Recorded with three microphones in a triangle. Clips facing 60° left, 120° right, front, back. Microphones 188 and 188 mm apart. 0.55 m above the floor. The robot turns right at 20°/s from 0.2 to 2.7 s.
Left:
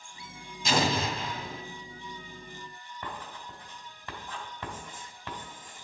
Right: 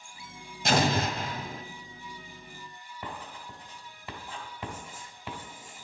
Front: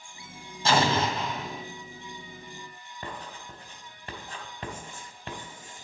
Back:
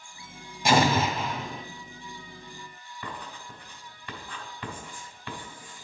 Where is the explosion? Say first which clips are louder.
Right 2 dB, back 2 dB; 105° right, 1.8 m; by 1.6 s 85° right, 1.8 m.